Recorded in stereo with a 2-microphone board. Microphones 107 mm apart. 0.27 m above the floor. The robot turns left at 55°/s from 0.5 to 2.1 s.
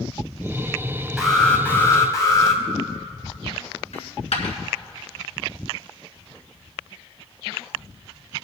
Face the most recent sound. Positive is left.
turn(degrees=75)  # may be behind; listen again after turning